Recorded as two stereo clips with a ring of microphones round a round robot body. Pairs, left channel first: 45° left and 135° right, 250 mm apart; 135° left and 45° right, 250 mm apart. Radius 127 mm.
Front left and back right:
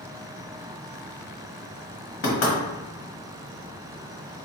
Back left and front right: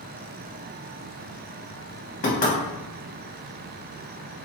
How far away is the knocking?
About 1.3 m.